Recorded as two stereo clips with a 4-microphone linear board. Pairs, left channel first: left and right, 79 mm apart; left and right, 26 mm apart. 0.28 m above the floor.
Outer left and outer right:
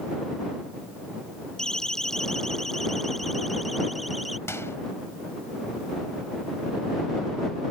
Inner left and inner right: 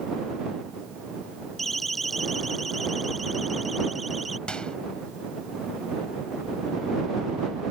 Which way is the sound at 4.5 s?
35° left (ahead or behind).